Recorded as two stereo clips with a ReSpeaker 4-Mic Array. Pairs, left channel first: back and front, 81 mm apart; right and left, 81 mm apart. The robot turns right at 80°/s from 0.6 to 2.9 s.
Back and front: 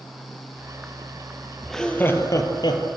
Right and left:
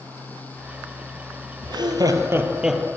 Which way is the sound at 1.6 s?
85° left.